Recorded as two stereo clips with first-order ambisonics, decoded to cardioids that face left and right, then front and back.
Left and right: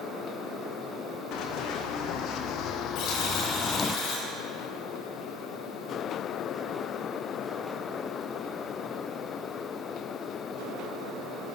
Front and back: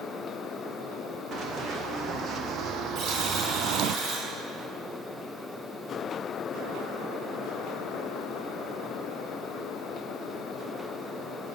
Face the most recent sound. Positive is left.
turn(degrees=130)